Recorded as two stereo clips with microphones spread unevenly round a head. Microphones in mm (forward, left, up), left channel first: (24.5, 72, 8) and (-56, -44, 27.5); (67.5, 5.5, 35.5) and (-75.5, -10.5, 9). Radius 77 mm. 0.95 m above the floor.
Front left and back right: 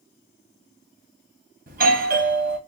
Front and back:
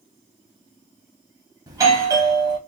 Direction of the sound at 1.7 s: 125° right.